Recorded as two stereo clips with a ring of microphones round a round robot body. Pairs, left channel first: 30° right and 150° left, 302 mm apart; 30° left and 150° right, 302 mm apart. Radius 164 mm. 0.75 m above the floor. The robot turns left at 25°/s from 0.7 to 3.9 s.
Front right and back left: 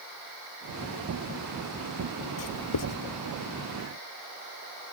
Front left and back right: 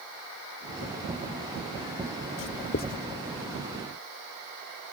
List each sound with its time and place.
2.4 s writing: 15° right; by 3.0 s 30° right